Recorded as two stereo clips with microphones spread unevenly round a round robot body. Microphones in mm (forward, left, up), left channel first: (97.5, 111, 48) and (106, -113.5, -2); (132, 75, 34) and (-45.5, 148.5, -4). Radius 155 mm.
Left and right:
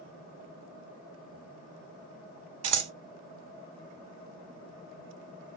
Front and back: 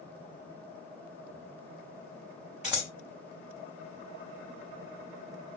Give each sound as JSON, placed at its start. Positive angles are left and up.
{"t": 2.6, "sound": "scissors", "azimuth_deg": -115, "distance_m": 1.1}